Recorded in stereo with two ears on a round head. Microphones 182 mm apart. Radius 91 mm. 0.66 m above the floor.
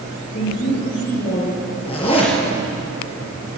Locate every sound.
0.3 s a woman speaking: 55° left (ahead or behind), 8.5 m
1.9 s a zipper: 25° left (ahead or behind), 5 m